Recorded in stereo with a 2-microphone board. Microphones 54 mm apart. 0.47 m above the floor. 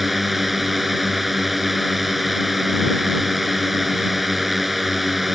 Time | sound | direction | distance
0.0 | a drone | 5° right (ahead or behind) | ?